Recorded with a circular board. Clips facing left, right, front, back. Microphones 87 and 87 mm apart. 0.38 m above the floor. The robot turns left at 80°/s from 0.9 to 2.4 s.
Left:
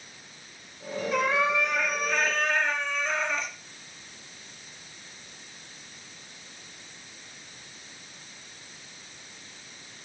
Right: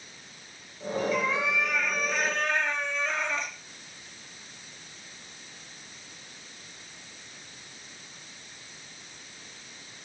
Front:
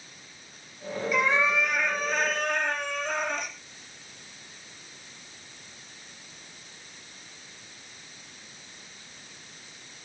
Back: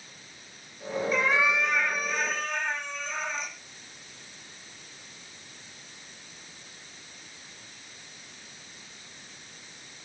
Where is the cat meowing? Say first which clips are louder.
Left 6 dB, front 1 dB; 130° left, 3.5 m; by 3.5 s 25° left, 3.5 m.